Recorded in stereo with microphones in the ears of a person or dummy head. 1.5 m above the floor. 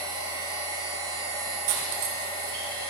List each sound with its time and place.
0.0 s a machine running: 20° right (ahead or behind), 4 m
1.7 s cutlery clinking: 55° right (ahead or behind), 1.6 m